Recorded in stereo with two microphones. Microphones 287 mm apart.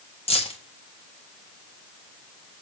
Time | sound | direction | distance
0.3 | keys jangling | 20° left (ahead or behind) | 1.7 m